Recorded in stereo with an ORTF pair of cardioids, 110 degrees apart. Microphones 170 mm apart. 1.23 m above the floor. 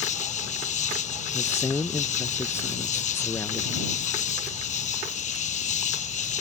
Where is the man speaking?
15° left.